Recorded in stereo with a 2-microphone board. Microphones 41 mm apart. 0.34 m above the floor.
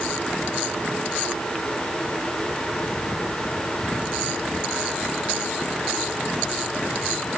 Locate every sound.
Only background noise.